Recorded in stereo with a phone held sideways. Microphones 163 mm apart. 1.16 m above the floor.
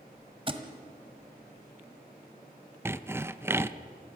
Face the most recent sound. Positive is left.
turn(degrees=-15)  # may be behind; listen again after turning